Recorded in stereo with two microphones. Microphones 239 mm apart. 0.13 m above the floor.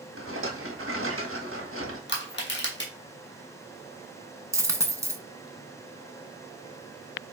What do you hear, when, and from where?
0.2 s a rattle: 65° right (ahead or behind), 0.9 m
2.1 s crushing: 50° left (ahead or behind), 0.9 m
4.5 s a dropped coin: 10° right (ahead or behind), 0.5 m